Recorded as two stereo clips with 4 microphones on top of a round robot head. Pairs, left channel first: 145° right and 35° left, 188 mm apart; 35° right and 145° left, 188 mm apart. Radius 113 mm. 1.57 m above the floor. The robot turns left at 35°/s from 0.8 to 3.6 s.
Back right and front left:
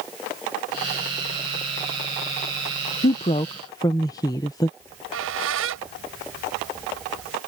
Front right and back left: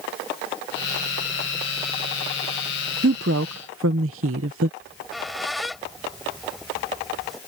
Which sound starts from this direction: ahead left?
A squeak, at 4.8 s.